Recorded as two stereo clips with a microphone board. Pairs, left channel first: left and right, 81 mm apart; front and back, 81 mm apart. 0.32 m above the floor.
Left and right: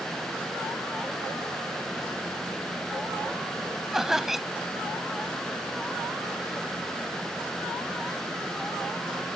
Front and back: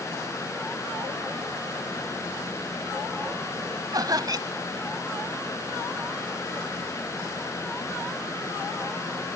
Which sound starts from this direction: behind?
Laughter, at 3.9 s.